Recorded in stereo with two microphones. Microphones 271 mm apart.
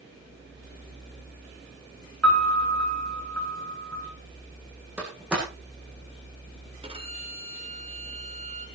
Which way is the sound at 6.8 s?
20° right (ahead or behind).